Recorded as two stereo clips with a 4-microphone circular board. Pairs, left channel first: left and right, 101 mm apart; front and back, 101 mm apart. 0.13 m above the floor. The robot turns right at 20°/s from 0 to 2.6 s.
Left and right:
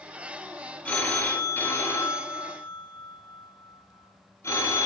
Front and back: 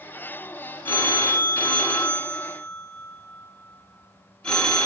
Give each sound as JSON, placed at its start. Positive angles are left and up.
{"t": 0.8, "sound": "a phone ringing", "azimuth_deg": 40, "distance_m": 0.8}